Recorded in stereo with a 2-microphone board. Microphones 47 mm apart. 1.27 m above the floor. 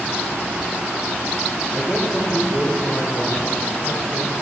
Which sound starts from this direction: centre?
A man speaking, at 1.7 s.